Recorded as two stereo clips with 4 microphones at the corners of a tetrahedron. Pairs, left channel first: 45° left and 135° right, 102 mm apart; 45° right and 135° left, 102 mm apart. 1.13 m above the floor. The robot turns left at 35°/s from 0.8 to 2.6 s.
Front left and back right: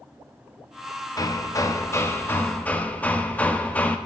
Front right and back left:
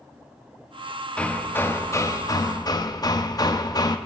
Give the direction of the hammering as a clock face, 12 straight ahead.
11 o'clock.